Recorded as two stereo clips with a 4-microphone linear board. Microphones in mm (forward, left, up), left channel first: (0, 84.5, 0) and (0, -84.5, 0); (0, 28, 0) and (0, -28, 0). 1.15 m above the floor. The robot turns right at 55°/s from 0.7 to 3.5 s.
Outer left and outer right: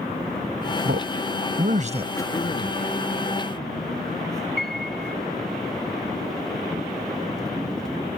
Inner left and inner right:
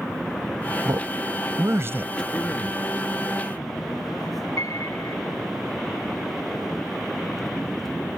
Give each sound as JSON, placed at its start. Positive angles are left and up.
{"t": 0.8, "sound": "a man speaking", "side_deg": -80}
{"t": 2.2, "sound": "throat clearing", "azimuth_deg": 15}
{"t": 4.6, "sound": "a piano", "side_deg": 75}